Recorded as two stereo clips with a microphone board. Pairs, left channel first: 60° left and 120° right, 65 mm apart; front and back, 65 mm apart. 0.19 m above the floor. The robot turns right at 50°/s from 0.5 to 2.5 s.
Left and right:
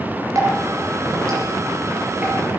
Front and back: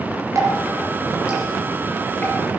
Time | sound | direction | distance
0.3 | dripping | 145° right | 4.5 m